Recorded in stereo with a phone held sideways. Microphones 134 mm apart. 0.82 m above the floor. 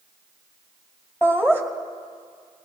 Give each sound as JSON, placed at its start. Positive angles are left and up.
{"t": 1.2, "sound": "laughter", "side_deg": 15, "distance_m": 2.0}